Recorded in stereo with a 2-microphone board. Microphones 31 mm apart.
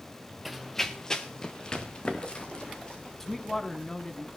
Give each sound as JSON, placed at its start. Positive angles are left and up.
{"t": 0.5, "sound": "running footsteps", "side_deg": -5, "distance_m": 0.9}
{"t": 3.2, "sound": "a man speaking", "side_deg": 10, "distance_m": 1.2}